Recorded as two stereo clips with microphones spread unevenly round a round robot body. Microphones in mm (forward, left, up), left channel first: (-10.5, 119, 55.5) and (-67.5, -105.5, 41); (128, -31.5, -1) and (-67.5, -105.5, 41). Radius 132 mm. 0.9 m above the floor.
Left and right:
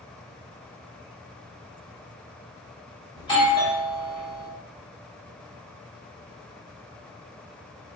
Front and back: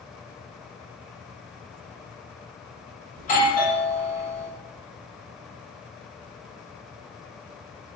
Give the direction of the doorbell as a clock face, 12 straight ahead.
12 o'clock.